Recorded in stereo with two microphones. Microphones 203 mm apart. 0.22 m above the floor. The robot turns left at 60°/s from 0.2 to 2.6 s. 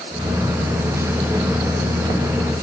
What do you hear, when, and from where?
Only background noise.